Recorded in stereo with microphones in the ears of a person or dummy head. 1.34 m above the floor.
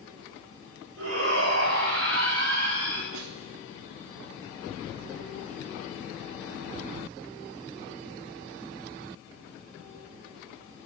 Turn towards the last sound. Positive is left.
turn(degrees=-80)